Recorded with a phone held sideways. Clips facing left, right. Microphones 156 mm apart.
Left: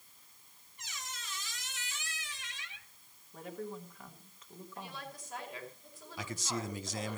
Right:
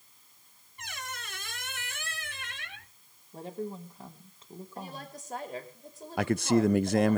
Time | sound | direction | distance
0.8 | a squeak | 60° right (ahead or behind) | 0.7 m
3.3 | a woman speaking | 30° right (ahead or behind) | 3 m
4.8 | a woman speaking | 40° right (ahead or behind) | 5 m
6.2 | a man speaking | 65° right (ahead or behind) | 0.6 m